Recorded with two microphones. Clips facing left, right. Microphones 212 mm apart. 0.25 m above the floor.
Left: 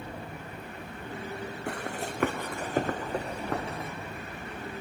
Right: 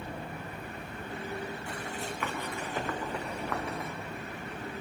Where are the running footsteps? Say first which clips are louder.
Left 3 dB; 75° left (ahead or behind), 1.2 m; by 3.9 s 25° left (ahead or behind), 1.6 m.